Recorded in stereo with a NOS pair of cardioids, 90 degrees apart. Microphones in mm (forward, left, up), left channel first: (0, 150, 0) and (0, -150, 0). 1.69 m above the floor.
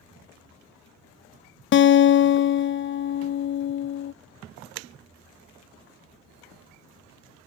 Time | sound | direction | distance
1.7 | a guitar | 40° left | 0.5 m